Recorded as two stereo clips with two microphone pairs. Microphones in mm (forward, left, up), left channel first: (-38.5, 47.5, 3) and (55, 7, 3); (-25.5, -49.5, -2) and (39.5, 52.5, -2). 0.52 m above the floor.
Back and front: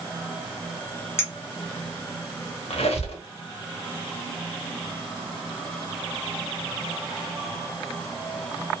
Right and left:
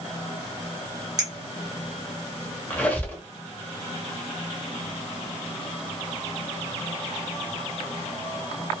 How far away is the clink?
About 0.9 m.